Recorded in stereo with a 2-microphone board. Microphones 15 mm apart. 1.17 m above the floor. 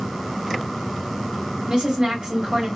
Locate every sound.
1.7 s a woman speaking: 50° right (ahead or behind), 2 m